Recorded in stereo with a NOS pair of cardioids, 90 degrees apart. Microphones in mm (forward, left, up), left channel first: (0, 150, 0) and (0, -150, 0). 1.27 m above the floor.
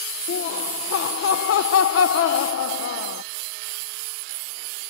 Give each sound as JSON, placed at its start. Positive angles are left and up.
{"t": 0.3, "sound": "laughter", "azimuth_deg": 50}